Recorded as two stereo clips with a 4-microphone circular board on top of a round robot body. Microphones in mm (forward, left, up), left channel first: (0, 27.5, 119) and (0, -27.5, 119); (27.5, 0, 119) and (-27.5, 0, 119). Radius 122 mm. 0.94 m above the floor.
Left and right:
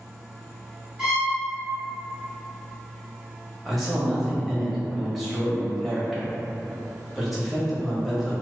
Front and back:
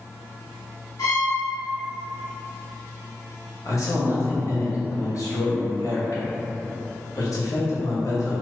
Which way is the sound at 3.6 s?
5° right.